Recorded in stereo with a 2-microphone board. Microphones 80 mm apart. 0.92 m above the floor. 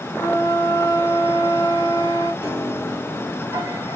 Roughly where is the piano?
Right.